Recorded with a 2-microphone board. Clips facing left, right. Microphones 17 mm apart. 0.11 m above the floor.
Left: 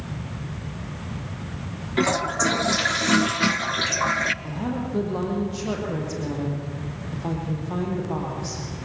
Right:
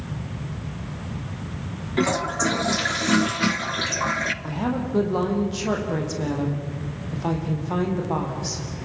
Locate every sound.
2.0 s a toilet flushing: 10° left (ahead or behind), 0.6 m
4.4 s a woman speaking: 25° right (ahead or behind), 5.5 m